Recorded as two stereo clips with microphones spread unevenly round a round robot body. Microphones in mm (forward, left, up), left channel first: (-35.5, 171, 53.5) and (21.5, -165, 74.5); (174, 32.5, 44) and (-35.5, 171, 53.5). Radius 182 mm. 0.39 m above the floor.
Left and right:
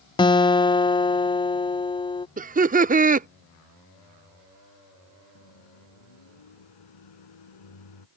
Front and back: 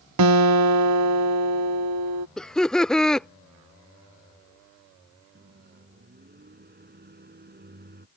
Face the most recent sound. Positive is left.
turn(degrees=95)